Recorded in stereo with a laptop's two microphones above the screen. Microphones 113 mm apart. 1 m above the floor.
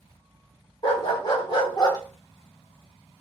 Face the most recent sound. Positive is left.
turn(degrees=35)  # may be behind; listen again after turning